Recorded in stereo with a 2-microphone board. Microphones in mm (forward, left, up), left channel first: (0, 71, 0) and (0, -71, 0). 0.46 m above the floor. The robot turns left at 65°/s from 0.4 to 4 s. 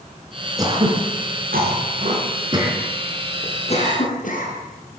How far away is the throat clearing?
About 3.5 m.